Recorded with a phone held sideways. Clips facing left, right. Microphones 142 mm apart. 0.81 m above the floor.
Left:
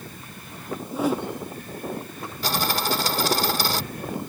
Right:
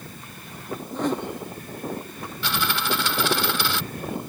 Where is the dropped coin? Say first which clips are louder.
Left 2 dB; 40° left (ahead or behind).